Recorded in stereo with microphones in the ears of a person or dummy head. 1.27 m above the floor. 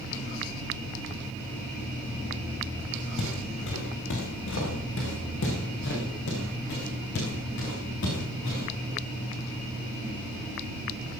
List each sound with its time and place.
3.2 s footsteps: 75° left (ahead or behind), 6.5 m; by 8.6 s 65° left (ahead or behind), 8.5 m